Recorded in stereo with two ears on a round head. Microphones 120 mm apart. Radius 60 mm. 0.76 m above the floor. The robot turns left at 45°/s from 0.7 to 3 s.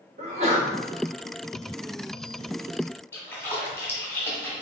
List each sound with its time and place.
0.2 s a sneeze: 50° right (ahead or behind), 1.0 m
3.1 s a splash: 20° left (ahead or behind), 1.0 m